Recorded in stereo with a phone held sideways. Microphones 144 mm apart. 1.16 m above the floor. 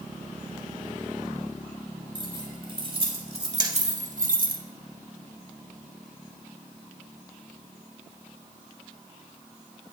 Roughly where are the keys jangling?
Right.